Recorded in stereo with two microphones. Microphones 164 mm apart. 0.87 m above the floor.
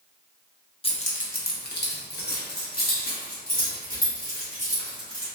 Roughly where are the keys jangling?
Left.